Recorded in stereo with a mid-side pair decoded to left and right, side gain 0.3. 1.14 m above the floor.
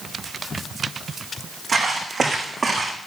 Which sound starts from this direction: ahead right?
Footsteps, at 1.7 s.